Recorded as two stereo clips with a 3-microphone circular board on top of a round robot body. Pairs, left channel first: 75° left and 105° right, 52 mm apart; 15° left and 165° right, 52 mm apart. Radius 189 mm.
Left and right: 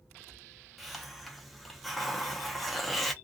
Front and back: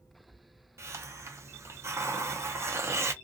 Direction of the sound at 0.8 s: 165° left.